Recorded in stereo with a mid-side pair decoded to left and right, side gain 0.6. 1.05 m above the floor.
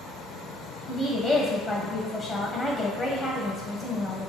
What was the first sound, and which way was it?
A woman speaking, 15° left.